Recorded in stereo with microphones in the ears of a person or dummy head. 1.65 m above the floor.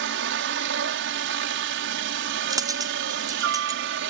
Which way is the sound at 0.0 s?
60° right (ahead or behind).